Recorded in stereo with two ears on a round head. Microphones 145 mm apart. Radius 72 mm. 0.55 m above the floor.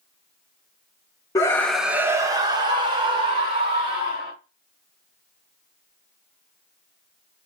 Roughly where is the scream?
Left.